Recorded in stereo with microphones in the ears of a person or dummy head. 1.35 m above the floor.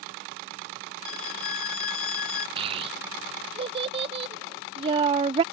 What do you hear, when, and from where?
1.1 s a violin: 60° left (ahead or behind)
2.6 s a child speaking: 30° right (ahead or behind)